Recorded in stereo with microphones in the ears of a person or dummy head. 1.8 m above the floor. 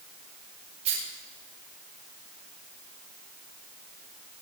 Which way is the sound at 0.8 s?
35° right (ahead or behind).